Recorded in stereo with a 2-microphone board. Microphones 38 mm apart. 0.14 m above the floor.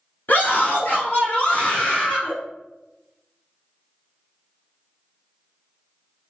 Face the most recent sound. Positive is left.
turn(degrees=30)  # may be behind; listen again after turning